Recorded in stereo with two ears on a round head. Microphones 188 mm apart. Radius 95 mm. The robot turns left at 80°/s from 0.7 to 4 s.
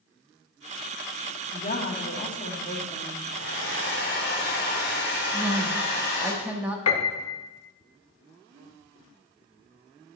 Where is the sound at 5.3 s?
10° right (ahead or behind), 0.7 m.